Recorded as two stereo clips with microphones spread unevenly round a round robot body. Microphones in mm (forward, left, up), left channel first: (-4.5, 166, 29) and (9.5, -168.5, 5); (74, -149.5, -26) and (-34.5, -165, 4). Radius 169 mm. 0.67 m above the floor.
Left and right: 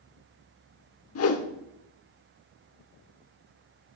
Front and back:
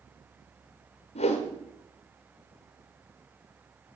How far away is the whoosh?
About 1.5 m.